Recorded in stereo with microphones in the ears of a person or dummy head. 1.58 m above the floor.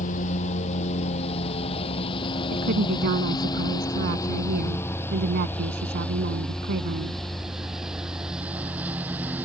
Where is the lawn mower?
40° left (ahead or behind); by 9.4 s 10° right (ahead or behind).